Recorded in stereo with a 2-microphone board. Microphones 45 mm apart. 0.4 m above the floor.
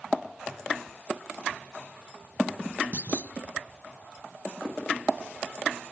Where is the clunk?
45° right (ahead or behind).